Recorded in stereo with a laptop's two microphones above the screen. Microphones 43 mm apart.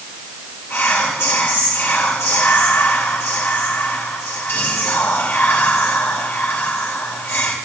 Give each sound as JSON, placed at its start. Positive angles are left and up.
{"t": 0.7, "sound": "whispering", "side_deg": 65, "distance_m": 1.8}